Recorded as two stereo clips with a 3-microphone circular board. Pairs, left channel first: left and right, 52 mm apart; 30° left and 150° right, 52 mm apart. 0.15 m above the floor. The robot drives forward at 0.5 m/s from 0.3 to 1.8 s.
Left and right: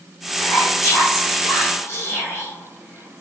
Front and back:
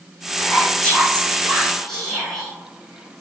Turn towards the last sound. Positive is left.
turn(degrees=115)